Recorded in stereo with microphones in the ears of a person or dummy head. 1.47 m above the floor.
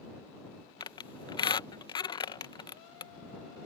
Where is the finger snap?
No finger snap in this recording.